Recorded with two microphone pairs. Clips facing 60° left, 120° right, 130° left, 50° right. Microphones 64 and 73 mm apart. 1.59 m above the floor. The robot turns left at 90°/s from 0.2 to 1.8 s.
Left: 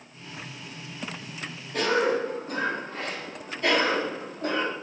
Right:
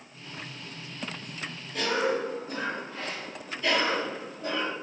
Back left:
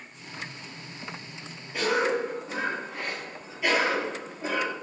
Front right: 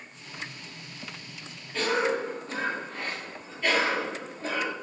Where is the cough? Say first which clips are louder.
Left 3 dB, back left 1 dB; 55° left, 4.5 m; by 4.7 s 50° left, 4.5 m.